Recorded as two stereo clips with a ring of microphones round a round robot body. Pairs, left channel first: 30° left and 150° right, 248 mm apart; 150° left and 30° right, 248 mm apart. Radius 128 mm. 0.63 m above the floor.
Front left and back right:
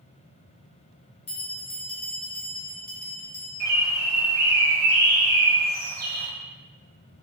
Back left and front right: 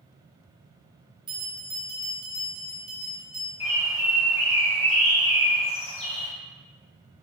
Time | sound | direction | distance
1.3 | a bell | 40° left | 0.9 m
3.6 | a bird | 160° right | 0.6 m